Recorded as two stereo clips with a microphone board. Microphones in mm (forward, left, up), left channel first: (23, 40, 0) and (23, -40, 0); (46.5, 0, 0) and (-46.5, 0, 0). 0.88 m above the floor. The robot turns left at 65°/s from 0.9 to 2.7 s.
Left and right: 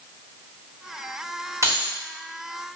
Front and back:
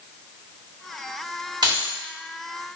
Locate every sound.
1.6 s keys jangling: 140° right, 1.4 m; by 1.9 s 160° right, 1.4 m